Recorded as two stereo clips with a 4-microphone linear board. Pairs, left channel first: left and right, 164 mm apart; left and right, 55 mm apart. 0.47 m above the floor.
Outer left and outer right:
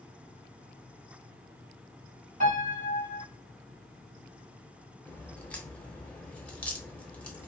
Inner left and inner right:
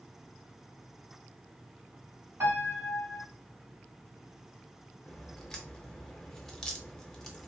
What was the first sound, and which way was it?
A piano, 55° right (ahead or behind).